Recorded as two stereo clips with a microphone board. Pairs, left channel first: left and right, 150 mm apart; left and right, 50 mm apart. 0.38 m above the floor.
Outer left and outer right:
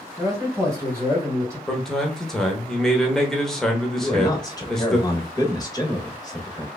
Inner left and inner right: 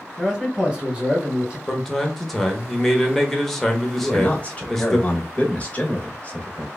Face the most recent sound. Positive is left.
turn(degrees=25)  # may be behind; listen again after turning